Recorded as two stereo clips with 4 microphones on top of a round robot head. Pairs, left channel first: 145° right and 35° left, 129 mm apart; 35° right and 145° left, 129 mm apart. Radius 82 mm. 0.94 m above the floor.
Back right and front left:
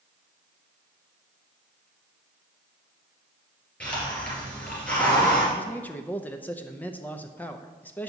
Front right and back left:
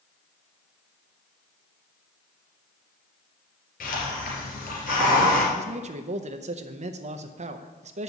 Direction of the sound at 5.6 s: 140° left.